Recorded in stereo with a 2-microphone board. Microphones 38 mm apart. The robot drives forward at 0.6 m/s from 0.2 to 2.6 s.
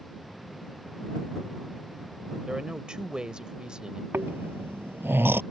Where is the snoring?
75° right (ahead or behind).